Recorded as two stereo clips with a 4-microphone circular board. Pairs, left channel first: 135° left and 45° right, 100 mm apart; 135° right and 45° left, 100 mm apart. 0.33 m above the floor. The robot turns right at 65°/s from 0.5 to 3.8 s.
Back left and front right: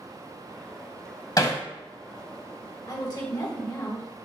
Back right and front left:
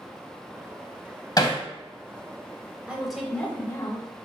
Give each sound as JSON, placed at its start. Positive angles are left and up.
{"t": 1.4, "sound": "hammering", "azimuth_deg": 180, "distance_m": 0.8}
{"t": 2.9, "sound": "a woman speaking", "azimuth_deg": 120, "distance_m": 1.3}